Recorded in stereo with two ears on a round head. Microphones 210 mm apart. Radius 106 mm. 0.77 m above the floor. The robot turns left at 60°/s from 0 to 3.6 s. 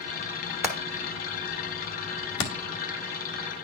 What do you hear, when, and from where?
0.6 s hammering: 10° right (ahead or behind), 1.6 m; by 2.5 s 75° left (ahead or behind), 1.6 m